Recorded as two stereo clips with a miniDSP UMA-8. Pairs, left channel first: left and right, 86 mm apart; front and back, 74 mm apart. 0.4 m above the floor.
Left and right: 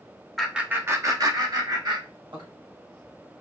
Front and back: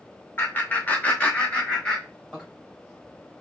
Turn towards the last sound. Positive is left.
turn(degrees=-80)